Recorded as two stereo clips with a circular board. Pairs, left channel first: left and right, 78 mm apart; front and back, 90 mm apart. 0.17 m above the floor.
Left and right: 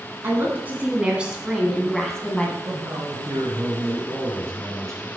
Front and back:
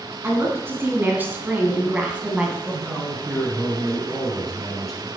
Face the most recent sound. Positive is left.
turn(degrees=-90)